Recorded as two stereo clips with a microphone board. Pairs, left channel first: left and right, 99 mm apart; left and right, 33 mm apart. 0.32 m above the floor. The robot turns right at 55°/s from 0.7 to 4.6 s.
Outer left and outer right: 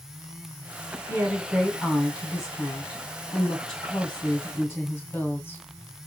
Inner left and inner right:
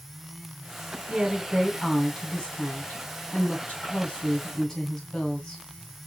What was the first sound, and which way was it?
A woman speaking, 35° right.